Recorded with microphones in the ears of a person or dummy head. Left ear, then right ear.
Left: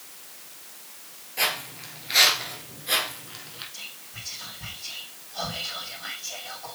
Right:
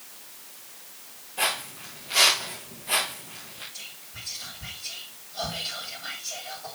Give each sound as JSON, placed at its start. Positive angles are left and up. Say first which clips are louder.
{"t": 1.4, "sound": "footsteps", "louder": "left 1 dB", "side_deg": 40, "distance_m": 4.5}
{"t": 3.7, "sound": "whispering", "louder": "left 1 dB", "side_deg": 85, "distance_m": 2.5}